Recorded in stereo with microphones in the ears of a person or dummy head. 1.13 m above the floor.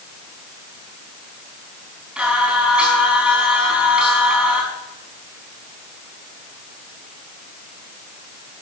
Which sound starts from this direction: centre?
Singing, at 2.2 s.